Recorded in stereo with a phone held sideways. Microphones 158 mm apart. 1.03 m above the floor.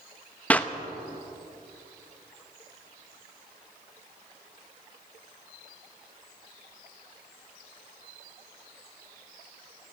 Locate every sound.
0.5 s a clap: 10° left (ahead or behind), 0.9 m